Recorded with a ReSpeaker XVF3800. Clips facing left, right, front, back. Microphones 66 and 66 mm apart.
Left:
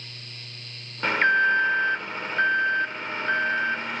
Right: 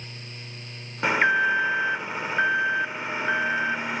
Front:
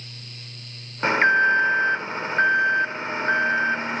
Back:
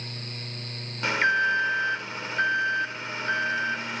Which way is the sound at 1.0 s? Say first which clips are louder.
Left 1 dB, front 5 dB; 20° right.